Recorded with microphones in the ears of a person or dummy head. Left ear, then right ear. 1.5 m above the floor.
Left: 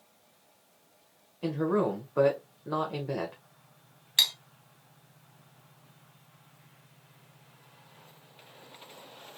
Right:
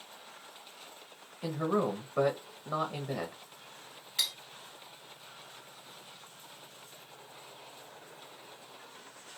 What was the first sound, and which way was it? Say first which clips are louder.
A man speaking: left 3 dB; centre (ahead or behind).